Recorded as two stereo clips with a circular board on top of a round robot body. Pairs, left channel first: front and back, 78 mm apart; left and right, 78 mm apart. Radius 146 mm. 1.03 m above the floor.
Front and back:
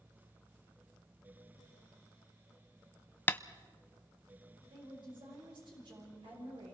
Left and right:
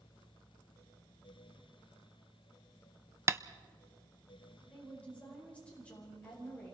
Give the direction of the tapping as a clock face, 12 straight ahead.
2 o'clock.